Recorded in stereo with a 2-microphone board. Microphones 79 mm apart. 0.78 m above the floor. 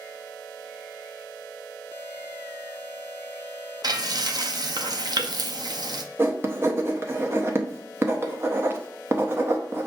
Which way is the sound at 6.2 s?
30° right (ahead or behind).